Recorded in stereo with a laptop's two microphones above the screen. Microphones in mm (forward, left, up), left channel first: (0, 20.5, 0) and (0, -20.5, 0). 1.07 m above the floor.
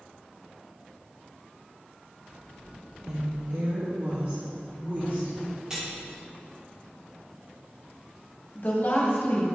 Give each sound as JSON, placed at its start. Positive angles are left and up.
{"t": 3.1, "sound": "a woman speaking", "side_deg": -75, "distance_m": 0.9}
{"t": 5.7, "sound": "cutlery clinking", "side_deg": -15, "distance_m": 1.5}
{"t": 8.6, "sound": "a woman speaking", "side_deg": 50, "distance_m": 1.3}